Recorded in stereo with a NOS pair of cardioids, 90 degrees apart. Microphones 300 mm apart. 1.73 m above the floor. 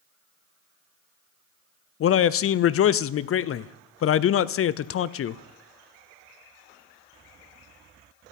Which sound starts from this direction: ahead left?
A man speaking, at 2.0 s.